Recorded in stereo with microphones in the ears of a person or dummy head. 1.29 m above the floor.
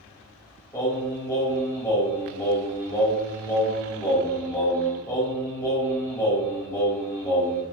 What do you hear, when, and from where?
0.7 s singing: 10° left (ahead or behind), 3 m